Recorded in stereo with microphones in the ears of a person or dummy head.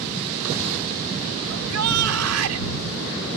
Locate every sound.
1.5 s a shout: 85° right